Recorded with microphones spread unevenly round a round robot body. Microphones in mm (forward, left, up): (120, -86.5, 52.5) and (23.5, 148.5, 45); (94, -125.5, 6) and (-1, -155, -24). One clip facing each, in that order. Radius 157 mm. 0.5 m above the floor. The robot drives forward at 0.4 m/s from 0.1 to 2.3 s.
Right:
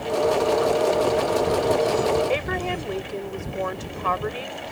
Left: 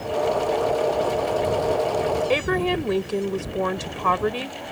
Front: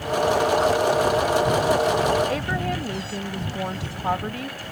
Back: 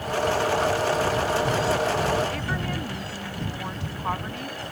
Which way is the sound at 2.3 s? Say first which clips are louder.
Left 4 dB, front 4 dB; 80° left.